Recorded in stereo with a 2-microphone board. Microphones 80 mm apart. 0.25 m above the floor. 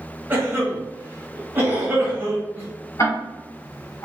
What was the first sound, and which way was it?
A cough, 25° right (ahead or behind).